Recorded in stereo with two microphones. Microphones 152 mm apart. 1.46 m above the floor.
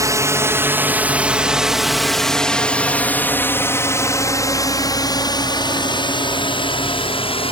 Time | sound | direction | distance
0.0 | a drone | 20° right (ahead or behind) | ?